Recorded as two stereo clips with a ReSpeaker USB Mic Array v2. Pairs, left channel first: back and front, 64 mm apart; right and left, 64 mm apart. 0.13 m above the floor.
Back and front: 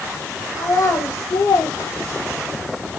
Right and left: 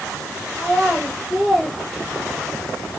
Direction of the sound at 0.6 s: 160° right.